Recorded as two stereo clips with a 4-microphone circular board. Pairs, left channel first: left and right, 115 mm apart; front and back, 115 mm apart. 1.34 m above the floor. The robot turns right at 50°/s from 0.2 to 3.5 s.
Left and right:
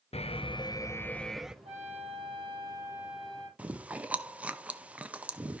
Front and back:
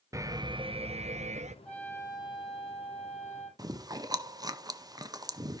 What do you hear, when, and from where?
0.1 s an alarm: 120° left, 0.5 m; by 1.6 s 175° right, 0.5 m
1.6 s a trumpet: 80° right, 9.5 m; by 3.5 s 10° left, 9.5 m
3.6 s chewing: 160° right, 0.6 m